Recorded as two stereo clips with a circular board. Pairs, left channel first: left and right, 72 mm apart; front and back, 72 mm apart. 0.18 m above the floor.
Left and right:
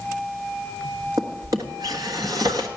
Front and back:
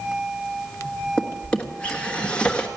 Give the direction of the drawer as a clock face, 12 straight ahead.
2 o'clock.